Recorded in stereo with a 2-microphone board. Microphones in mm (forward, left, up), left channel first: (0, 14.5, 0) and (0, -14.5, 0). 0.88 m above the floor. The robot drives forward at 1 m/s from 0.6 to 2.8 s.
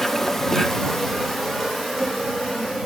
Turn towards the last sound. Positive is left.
turn(degrees=5)  # may be behind; listen again after turning